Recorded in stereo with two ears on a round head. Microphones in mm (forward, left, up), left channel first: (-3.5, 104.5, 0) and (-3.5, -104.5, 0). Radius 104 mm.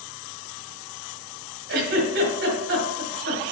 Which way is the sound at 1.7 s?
50° right (ahead or behind).